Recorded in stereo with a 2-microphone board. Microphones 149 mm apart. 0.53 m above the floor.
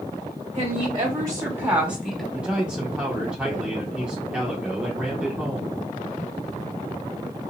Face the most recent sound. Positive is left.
turn(degrees=-5)  # may be behind; listen again after turning